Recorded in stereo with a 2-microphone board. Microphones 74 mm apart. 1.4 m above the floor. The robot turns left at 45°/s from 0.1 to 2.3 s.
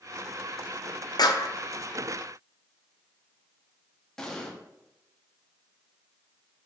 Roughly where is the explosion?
Centre.